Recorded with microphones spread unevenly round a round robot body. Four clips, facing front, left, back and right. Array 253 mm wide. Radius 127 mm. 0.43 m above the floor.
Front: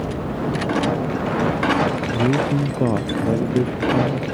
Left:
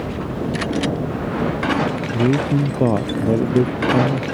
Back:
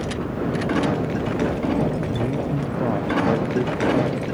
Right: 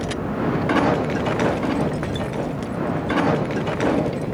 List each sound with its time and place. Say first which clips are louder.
2.1 s a man speaking: left 8 dB, front 5 dB; 55° left; by 4.2 s 65° left